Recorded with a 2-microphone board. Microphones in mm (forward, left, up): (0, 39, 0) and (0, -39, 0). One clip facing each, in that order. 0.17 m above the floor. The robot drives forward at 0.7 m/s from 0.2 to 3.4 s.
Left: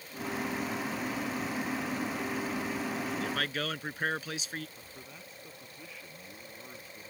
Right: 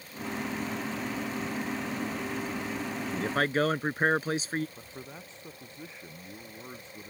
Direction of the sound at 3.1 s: 35° right (ahead or behind).